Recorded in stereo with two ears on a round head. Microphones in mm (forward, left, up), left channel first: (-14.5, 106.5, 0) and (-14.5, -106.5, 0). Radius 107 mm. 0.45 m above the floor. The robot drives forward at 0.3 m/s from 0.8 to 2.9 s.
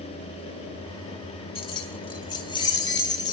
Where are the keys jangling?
25° left (ahead or behind), 1.4 m; by 3.3 s 20° left (ahead or behind), 1.7 m.